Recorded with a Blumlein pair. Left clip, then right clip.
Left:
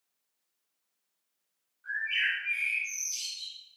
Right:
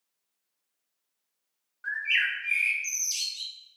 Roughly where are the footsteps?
I don't hear footsteps.